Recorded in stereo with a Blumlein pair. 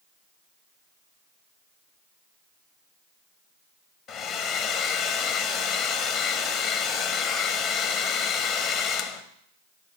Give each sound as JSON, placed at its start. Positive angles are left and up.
{"t": 4.1, "sound": "a hair dryer", "azimuth_deg": 40, "distance_m": 1.4}